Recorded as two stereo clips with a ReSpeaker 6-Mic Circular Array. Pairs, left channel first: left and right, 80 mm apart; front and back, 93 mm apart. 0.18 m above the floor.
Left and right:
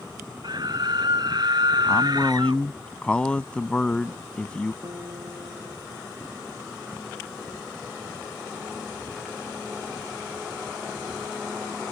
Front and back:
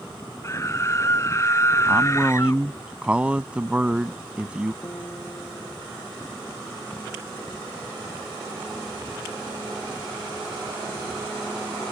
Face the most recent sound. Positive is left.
turn(degrees=-60)